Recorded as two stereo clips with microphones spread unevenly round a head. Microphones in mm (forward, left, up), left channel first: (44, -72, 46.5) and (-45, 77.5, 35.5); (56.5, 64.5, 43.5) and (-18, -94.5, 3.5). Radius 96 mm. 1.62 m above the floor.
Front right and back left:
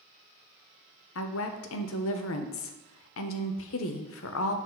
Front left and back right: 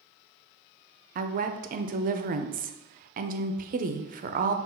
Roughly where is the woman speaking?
Right.